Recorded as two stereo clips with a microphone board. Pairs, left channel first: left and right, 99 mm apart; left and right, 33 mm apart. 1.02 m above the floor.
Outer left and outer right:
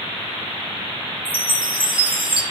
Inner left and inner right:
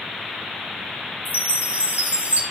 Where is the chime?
55° right (ahead or behind), 1.6 m.